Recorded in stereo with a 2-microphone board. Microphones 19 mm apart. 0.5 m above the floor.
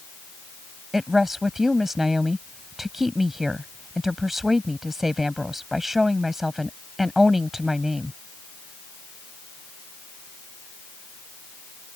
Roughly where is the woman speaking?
Right.